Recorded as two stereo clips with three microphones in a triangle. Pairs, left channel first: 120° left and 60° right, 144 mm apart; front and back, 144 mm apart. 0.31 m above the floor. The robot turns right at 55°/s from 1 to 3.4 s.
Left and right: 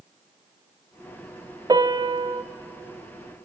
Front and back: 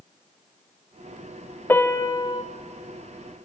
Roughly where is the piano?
Ahead right.